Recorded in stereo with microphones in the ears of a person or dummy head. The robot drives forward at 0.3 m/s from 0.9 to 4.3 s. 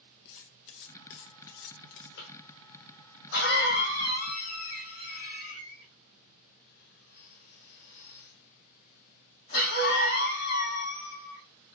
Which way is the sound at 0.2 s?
60° left (ahead or behind).